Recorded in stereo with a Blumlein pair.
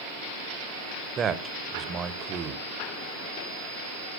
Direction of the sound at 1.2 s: 25° right.